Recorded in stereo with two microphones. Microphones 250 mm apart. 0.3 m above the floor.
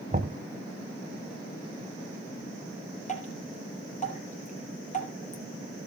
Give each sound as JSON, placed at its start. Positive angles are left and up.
{"t": 0.1, "sound": "knocking", "side_deg": -35, "distance_m": 1.4}
{"t": 3.1, "sound": "dripping", "side_deg": 30, "distance_m": 4.0}